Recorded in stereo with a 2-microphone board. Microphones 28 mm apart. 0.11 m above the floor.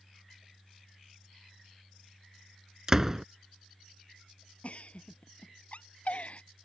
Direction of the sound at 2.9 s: 20° right (ahead or behind).